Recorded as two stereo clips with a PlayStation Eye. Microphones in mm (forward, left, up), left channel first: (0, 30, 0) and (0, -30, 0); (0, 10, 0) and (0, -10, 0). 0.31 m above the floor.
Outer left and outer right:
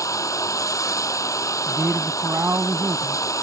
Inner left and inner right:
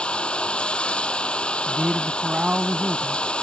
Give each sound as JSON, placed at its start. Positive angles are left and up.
{"t": 0.0, "sound": "running water", "side_deg": 70}
{"t": 1.7, "sound": "a man speaking", "side_deg": -45}